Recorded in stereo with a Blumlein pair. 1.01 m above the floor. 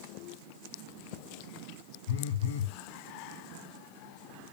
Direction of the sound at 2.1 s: 65° left.